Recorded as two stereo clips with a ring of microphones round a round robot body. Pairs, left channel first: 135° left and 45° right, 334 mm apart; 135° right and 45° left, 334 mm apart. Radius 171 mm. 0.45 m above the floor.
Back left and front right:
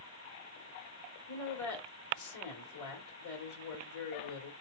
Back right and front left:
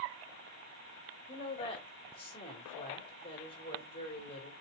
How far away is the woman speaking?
About 1.9 m.